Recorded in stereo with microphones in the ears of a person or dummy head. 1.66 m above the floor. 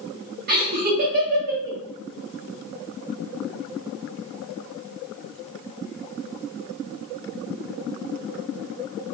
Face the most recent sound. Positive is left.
turn(degrees=-45)  # may be behind; listen again after turning